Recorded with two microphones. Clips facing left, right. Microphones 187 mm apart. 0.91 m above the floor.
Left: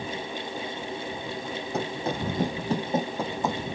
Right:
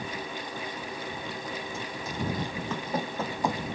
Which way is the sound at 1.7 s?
70° left (ahead or behind).